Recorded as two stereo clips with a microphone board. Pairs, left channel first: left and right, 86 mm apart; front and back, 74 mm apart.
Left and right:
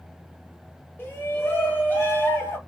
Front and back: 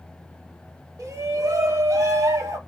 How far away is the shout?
About 1.1 m.